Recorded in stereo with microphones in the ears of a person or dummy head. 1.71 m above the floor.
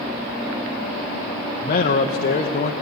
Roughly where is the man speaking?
Left.